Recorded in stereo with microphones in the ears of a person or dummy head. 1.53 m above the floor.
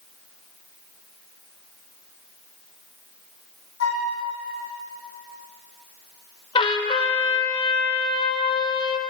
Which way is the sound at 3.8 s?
65° left (ahead or behind).